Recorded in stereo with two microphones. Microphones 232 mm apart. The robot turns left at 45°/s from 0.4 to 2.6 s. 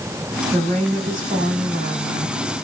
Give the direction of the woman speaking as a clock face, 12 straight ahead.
2 o'clock.